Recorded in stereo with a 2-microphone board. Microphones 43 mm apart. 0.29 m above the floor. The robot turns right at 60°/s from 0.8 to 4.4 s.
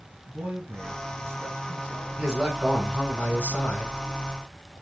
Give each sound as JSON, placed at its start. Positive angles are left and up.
{"t": 0.3, "sound": "a man speaking", "azimuth_deg": -105, "distance_m": 3.5}
{"t": 2.2, "sound": "a man speaking", "azimuth_deg": -25, "distance_m": 3.5}